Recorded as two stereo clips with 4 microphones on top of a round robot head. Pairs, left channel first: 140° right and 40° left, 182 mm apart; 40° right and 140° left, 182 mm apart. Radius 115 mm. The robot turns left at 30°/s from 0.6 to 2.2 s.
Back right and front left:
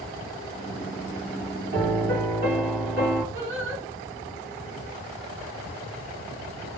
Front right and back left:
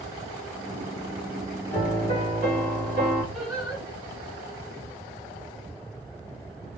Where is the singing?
45° left, 2.0 m.